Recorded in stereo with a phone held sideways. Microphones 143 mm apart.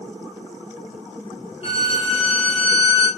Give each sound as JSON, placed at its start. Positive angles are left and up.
{"t": 1.6, "sound": "a violin", "side_deg": 45, "distance_m": 1.1}